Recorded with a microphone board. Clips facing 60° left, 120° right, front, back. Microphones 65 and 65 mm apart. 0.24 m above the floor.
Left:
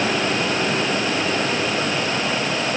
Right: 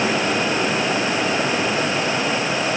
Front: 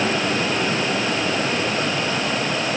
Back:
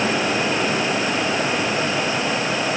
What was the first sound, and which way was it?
Only background noise.